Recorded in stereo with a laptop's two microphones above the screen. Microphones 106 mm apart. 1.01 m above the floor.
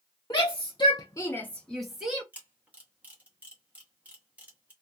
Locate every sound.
0.3 s a shout: 45° left (ahead or behind), 0.8 m; by 2.2 s 10° right (ahead or behind), 0.9 m
2.3 s a camera shutter: 15° right (ahead or behind), 0.8 m